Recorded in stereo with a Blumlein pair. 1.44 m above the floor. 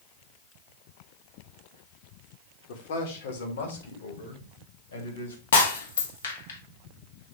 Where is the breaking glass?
60° left, 1.7 m.